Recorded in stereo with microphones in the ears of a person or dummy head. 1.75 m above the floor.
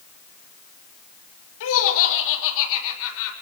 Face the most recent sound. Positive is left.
turn(degrees=75)  # may be behind; listen again after turning